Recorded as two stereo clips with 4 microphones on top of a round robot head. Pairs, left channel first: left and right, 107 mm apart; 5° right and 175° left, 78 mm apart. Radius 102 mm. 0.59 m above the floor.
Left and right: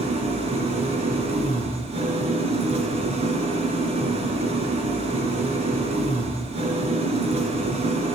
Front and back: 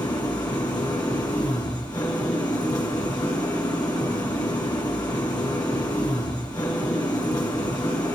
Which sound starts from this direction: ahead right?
An engine running, at 0.0 s.